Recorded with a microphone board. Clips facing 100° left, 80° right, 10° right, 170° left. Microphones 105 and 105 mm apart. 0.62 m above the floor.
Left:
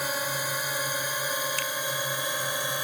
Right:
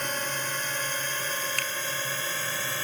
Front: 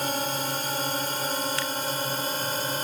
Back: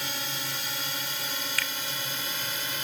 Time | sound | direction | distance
0.0 | a drone | 20° left | ?
1.6 | a finger snap | 70° right | ?